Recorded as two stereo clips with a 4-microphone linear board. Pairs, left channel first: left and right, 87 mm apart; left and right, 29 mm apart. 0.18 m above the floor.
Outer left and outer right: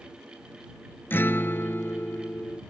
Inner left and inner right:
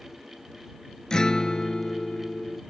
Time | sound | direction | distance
1.1 | a guitar | 25° left (ahead or behind) | ?